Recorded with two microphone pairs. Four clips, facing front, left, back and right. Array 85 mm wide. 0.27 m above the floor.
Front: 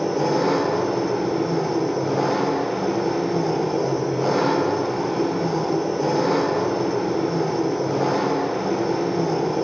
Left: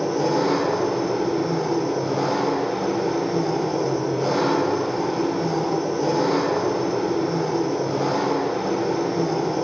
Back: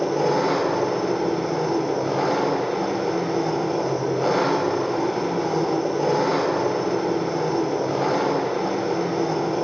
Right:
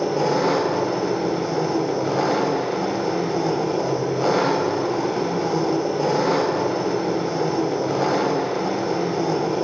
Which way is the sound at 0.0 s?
115° right.